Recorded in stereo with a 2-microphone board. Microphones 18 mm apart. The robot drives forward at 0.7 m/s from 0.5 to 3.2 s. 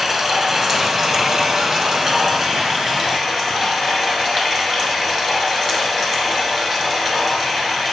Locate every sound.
0.0 s running water: 20° right (ahead or behind), 1.2 m; by 7.9 s 15° right (ahead or behind), 1.6 m